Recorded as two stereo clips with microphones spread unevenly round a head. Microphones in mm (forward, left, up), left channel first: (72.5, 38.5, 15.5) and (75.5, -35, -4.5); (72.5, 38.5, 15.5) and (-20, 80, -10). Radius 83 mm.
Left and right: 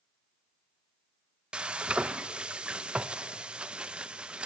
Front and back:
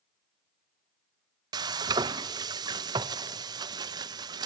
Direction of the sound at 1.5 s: 175° left.